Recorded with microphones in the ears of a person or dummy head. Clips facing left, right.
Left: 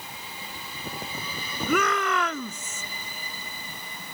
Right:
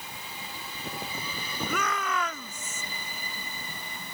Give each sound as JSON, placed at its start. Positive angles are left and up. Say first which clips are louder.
{"t": 1.7, "sound": "a shout", "louder": "left 8 dB", "side_deg": 55}